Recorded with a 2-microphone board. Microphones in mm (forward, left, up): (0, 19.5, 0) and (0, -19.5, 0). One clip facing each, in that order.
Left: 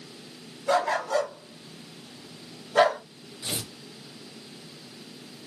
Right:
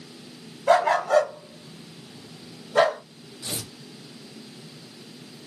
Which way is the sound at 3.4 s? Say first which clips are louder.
Left 1 dB; 30° left (ahead or behind).